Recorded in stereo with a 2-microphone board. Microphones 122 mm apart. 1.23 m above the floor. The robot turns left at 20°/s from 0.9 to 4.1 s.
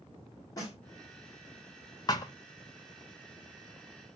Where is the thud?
35° left (ahead or behind), 0.8 m; by 2.3 s 30° left (ahead or behind), 0.8 m.